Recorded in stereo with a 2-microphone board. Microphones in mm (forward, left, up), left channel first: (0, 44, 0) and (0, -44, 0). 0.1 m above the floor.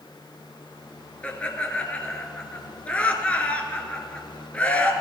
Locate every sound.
1.2 s laughter: 15° left (ahead or behind), 1.1 m